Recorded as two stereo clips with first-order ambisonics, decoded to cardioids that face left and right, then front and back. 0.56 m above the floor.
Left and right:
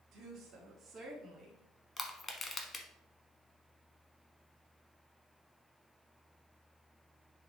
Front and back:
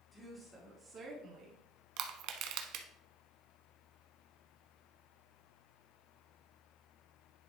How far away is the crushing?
About 0.8 m.